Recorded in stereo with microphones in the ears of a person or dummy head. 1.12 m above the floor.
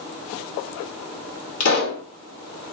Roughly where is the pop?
Left.